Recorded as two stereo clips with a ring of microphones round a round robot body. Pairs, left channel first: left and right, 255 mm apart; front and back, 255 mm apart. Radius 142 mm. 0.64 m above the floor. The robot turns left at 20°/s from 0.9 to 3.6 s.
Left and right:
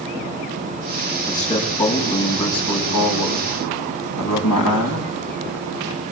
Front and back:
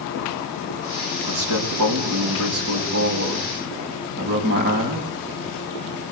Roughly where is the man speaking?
Behind.